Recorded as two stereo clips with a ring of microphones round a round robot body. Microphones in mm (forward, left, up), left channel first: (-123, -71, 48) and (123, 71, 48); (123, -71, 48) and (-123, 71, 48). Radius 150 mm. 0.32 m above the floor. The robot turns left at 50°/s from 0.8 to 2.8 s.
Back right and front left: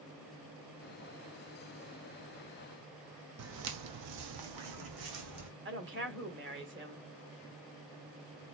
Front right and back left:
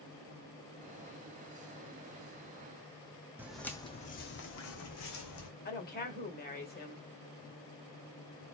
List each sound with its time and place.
3.4 s footsteps: 65° left, 0.8 m; by 5.5 s 5° right, 1.4 m
5.7 s a woman speaking: 10° left, 1.7 m